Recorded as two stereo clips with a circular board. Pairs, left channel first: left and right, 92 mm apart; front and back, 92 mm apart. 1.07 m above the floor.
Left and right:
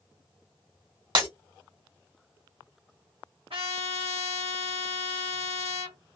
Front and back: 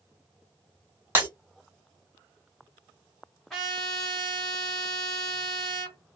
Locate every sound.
1.1 s breaking glass: 115° right, 1.8 m
3.5 s a trumpet: 90° right, 1.8 m